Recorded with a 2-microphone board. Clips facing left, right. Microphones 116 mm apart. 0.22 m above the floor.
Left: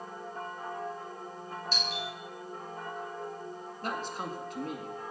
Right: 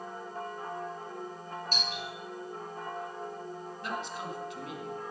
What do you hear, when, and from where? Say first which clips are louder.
1.7 s a doorbell: left 2 dB; 45° right (ahead or behind), 5 m
3.8 s a man speaking: left 2 dB; 45° left (ahead or behind), 2 m